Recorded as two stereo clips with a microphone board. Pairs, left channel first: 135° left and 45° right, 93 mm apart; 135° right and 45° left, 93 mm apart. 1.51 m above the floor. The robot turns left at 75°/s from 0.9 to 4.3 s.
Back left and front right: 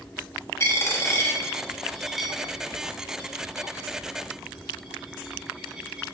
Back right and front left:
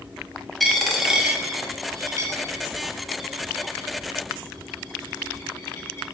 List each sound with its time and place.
0.6 s a dropped coin: 140° left, 1.0 m; by 6.0 s 115° right, 1.0 m